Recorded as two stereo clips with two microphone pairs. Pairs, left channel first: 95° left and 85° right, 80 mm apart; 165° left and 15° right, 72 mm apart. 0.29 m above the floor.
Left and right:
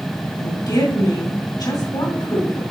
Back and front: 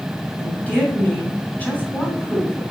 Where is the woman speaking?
100° left, 2.5 m.